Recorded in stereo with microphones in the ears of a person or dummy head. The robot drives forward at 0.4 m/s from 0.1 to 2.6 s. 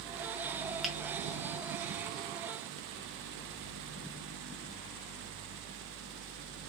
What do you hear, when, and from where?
0.8 s a finger snap: centre (ahead or behind), 0.6 m